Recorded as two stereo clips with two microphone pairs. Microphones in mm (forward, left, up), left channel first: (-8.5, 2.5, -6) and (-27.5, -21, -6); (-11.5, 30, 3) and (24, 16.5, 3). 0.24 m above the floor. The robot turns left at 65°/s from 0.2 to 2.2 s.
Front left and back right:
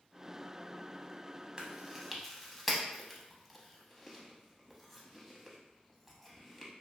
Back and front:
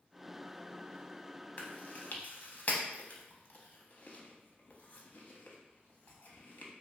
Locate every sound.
1.6 s chewing: 175° right, 0.6 m; by 6.7 s 145° left, 0.6 m